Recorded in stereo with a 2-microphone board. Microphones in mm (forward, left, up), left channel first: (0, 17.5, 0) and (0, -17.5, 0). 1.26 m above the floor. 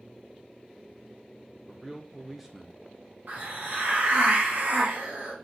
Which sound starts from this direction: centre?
A man speaking, at 1.7 s.